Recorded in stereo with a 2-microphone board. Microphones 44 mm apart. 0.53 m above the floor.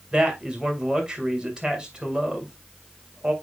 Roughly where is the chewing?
No chewing in this recording.